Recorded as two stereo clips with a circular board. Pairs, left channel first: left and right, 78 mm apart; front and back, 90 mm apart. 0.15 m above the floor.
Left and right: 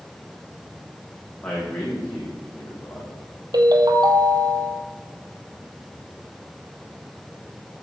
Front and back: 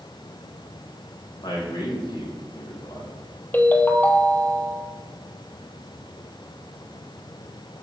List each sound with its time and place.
1.4 s a man speaking: 25° left, 6 m
3.5 s a ringtone: 65° right, 2 m